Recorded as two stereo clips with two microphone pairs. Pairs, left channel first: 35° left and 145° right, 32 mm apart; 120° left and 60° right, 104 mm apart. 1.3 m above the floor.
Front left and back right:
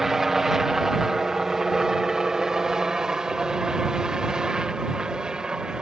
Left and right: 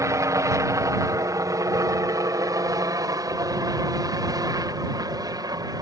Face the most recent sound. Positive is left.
turn(degrees=-90)